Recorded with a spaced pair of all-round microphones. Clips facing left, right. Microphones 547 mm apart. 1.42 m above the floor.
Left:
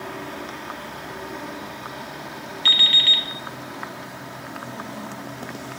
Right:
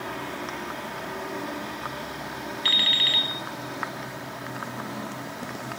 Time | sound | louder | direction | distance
2.6 | an alarm clock | even | 30° left (ahead or behind) | 0.9 m